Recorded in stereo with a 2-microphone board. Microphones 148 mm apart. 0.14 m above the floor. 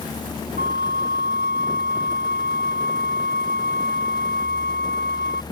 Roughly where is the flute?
Right.